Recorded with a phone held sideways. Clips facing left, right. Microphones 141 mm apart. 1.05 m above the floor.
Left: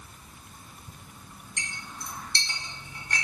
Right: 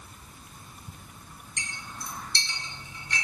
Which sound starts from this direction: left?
A clink, at 1.6 s.